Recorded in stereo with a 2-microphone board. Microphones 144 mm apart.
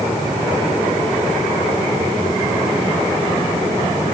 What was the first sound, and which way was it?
Only background noise.